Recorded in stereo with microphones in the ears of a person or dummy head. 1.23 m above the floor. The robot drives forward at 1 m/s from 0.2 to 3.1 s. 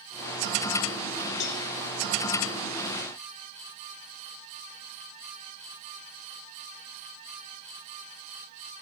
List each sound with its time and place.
1.4 s a cowbell: 65° left (ahead or behind), 1.5 m; by 1.6 s 55° left (ahead or behind), 1.6 m